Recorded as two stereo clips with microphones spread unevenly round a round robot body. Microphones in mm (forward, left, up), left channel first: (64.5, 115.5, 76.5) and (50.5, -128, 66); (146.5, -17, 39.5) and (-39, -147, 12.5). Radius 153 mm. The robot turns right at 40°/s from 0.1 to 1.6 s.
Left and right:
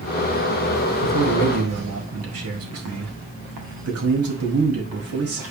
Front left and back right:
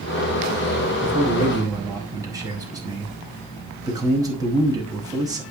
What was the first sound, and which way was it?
A man speaking, 95° right.